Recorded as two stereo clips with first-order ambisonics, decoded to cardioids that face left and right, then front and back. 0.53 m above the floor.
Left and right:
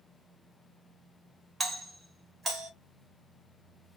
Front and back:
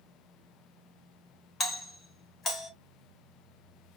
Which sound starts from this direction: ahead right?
A doorbell, at 1.6 s.